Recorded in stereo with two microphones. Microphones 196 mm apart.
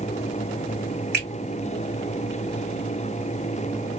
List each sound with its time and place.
1.1 s a finger snap: 55° right (ahead or behind), 2.5 m